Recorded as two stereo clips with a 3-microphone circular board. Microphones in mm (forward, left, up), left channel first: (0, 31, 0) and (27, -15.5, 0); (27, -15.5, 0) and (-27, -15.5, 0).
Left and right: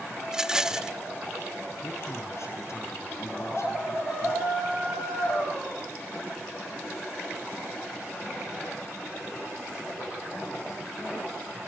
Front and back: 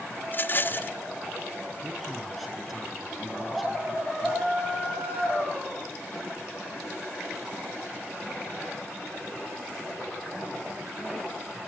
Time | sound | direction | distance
0.3 | a rattle | 10° left | 0.7 m
1.8 | a man speaking | 90° left | 7.5 m